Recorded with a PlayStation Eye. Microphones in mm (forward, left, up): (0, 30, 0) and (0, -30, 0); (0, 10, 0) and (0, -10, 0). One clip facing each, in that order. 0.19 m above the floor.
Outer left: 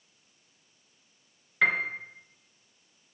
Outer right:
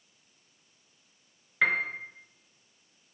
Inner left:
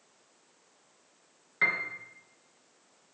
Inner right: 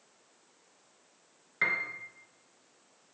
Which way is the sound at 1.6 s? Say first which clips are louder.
Outer left 1 dB, inner left 2 dB; 5° right (ahead or behind).